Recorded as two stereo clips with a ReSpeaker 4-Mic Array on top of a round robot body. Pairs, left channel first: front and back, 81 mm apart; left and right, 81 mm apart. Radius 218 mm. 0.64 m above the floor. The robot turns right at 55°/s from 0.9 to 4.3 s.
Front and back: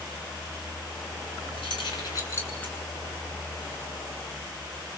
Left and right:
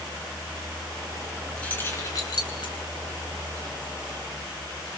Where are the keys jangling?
10° left, 6.5 m; by 2.7 s 75° left, 6.5 m.